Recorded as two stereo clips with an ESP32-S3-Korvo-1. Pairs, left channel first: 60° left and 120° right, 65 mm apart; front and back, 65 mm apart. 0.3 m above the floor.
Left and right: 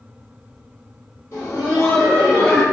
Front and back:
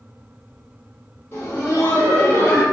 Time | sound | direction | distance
1.3 | laughter | 45° left | 1.6 m